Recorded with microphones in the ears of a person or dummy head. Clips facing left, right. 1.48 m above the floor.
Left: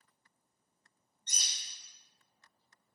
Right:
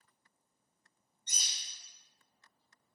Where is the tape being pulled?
No tape being pulled in this recording.